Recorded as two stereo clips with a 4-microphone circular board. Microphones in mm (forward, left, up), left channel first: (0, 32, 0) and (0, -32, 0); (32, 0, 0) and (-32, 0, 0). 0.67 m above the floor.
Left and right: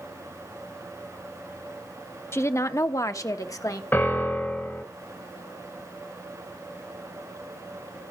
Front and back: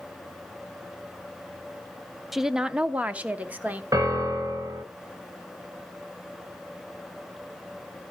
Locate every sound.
2.3 s a woman speaking: 95° left, 0.6 m; by 3.8 s 120° left, 1.3 m
3.9 s a piano: 150° left, 2 m